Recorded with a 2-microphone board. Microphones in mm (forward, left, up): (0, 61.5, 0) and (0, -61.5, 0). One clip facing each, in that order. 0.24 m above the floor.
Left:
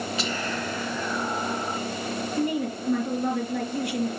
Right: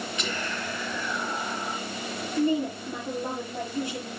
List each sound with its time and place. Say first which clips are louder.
0.2 s whispering: left 3 dB; 30° left (ahead or behind), 3 m
2.4 s a woman speaking: right 3 dB; 70° left (ahead or behind), 3.5 m